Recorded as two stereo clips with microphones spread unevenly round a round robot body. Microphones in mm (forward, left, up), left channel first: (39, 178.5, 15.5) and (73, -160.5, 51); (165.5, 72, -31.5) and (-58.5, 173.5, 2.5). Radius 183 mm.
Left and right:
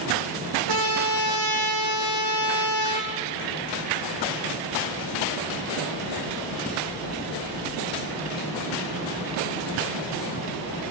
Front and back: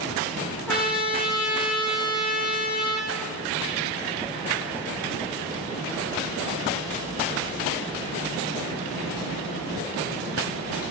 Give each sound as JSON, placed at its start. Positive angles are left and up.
{"t": 0.7, "sound": "a trumpet", "azimuth_deg": -110, "distance_m": 6.5}